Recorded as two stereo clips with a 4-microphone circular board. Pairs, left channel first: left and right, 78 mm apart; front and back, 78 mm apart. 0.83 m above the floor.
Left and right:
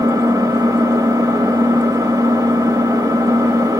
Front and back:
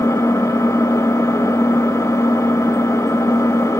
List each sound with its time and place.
0.0 s an engine running: 50° right, 0.8 m